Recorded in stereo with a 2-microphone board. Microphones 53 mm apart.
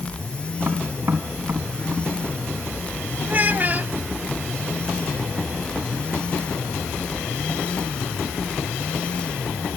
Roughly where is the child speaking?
Right.